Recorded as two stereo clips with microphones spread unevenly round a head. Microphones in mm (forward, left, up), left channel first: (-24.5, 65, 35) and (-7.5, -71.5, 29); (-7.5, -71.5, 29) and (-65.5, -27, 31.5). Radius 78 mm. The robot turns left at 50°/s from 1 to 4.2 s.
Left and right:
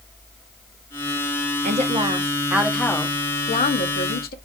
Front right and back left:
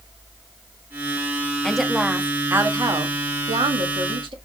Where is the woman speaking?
120° right, 1.5 m; by 4.3 s 115° left, 1.5 m.